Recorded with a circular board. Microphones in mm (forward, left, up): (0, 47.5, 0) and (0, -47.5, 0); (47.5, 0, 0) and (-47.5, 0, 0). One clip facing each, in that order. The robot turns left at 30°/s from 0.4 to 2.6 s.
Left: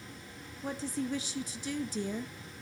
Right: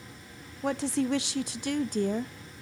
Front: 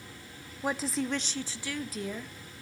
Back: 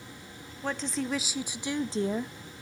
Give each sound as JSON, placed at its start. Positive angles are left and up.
{"t": 0.6, "sound": "a woman speaking", "azimuth_deg": -80, "distance_m": 0.5}